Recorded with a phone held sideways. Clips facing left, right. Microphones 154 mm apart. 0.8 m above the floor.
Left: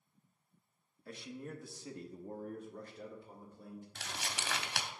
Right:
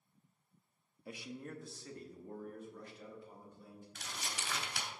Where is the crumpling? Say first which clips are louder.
Left 1 dB; 80° left, 0.8 m.